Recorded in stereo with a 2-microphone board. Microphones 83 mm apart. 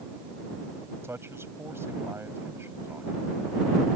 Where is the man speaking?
30° right (ahead or behind).